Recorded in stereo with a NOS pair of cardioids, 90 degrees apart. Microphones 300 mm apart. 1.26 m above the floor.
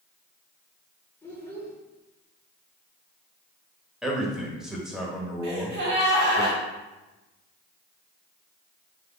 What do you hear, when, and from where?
1.2 s a child speaking: 10° left, 1.2 m
4.0 s a man speaking: straight ahead, 1.3 m
5.4 s a gasp: 70° right, 2 m